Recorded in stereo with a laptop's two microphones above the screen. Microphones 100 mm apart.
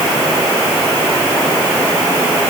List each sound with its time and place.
Only background noise.